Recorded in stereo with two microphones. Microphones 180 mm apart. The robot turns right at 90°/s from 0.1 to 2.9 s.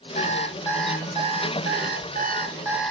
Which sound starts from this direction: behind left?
An alarm clock, at 0.1 s.